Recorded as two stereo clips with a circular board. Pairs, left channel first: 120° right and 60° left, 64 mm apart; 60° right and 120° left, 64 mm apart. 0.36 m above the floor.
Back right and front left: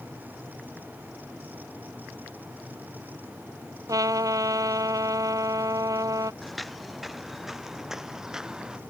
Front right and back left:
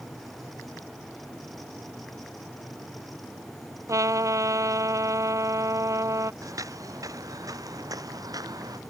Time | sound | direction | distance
3.9 | a trumpet | 85° left | ?
6.4 | footsteps | 150° left | ?